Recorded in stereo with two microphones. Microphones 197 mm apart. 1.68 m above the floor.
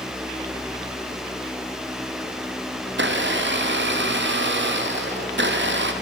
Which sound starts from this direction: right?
A blender, at 2.9 s.